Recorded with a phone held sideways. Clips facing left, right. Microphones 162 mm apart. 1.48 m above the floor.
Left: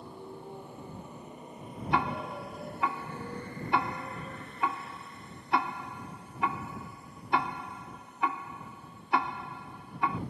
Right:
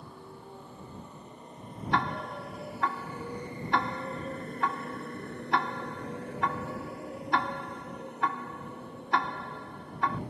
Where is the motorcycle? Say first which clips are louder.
Left 3 dB; 20° left (ahead or behind); by 10.3 s 60° right (ahead or behind).